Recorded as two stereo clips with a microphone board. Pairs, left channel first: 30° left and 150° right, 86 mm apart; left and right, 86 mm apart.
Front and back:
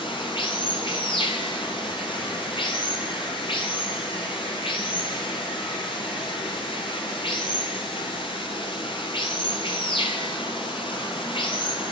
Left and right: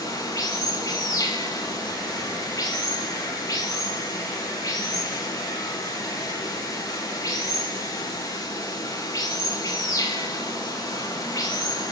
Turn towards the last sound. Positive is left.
turn(degrees=45)